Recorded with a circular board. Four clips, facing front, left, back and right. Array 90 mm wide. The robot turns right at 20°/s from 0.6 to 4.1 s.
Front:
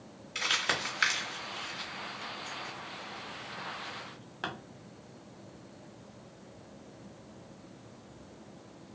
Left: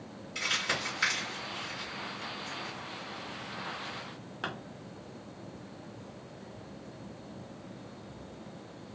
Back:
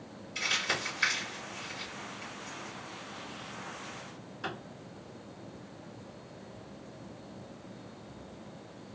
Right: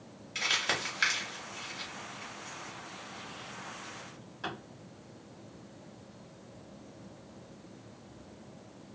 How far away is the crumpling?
About 1.3 m.